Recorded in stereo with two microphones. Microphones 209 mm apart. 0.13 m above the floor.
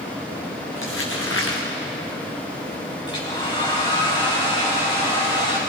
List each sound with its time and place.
0.7 s crumpling: 80° left, 4 m
3.1 s a hair dryer: 25° left (ahead or behind), 5 m